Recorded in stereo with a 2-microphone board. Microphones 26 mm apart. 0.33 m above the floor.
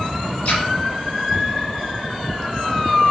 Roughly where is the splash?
Left.